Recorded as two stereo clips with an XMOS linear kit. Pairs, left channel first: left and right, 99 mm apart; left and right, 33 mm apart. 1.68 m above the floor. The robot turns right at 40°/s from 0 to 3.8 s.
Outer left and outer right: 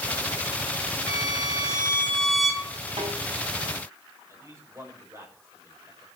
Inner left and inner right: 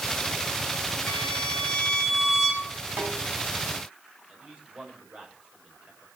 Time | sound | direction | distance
1.1 | a violin | 120° left | 3 m
3.0 | a snare drum | 70° right (ahead or behind) | 5.5 m
4.3 | a man speaking | 30° right (ahead or behind) | 7 m